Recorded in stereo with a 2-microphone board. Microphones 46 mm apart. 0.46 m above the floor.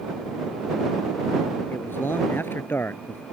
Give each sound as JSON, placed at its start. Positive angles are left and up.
{"t": 1.7, "sound": "a man speaking", "side_deg": 55}